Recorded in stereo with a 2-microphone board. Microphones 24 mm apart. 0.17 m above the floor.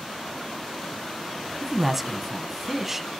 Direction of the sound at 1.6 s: 10° right (ahead or behind).